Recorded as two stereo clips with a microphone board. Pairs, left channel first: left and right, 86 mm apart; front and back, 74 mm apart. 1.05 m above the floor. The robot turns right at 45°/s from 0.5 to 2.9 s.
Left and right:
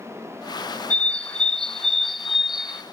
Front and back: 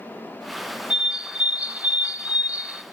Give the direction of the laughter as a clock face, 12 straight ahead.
No laughter in this recording.